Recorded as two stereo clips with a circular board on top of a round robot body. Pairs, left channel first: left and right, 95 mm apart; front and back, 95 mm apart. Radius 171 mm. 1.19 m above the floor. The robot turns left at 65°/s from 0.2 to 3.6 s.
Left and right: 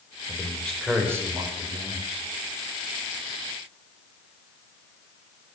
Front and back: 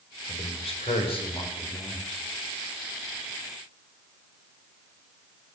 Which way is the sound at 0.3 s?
30° left.